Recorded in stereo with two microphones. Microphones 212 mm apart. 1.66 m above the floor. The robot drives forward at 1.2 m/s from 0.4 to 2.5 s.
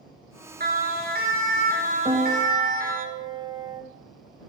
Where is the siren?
45° right (ahead or behind), 3 m.